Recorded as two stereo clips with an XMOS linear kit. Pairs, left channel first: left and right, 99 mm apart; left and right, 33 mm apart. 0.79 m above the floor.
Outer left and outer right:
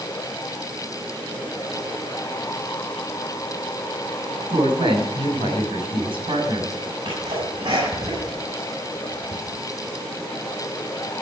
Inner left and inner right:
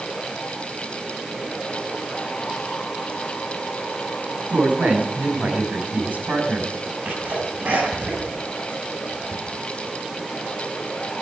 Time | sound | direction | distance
4.5 | a woman speaking | 65° right (ahead or behind) | 6 m
7.0 | a sneeze | 70° right (ahead or behind) | 7 m